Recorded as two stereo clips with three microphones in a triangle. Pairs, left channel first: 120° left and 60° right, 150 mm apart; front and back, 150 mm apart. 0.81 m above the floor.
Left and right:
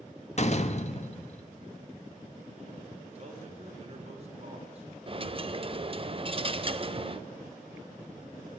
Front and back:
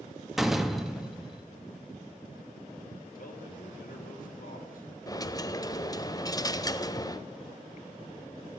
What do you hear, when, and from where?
0.4 s a door slam: 90° left, 0.9 m
3.1 s a man speaking: 15° right, 3 m
5.1 s a dropped coin: 50° right, 0.6 m